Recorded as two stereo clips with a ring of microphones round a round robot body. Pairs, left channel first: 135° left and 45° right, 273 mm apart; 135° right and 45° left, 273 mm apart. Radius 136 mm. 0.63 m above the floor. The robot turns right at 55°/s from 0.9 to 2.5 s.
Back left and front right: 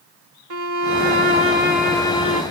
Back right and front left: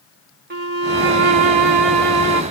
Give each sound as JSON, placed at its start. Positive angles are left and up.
{"t": 0.5, "sound": "a violin", "azimuth_deg": -10, "distance_m": 2.5}